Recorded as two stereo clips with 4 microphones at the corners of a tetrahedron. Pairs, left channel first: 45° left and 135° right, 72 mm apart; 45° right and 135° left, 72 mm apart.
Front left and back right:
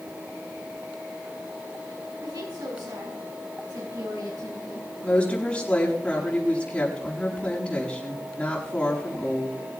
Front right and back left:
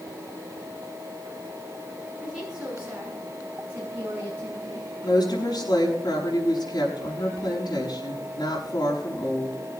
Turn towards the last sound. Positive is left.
turn(degrees=-30)